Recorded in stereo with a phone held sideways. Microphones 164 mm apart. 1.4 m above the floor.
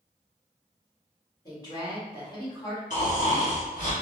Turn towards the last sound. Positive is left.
turn(degrees=50)  # may be behind; listen again after turning